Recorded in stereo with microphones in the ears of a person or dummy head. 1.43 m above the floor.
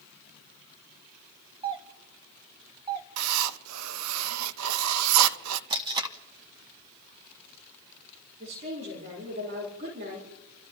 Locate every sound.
1.6 s a doorbell: 30° right (ahead or behind), 1.1 m
3.2 s writing: 85° right, 0.7 m
5.7 s tape being pulled: 25° right (ahead or behind), 0.6 m
8.4 s a woman speaking: 30° right (ahead or behind), 4.5 m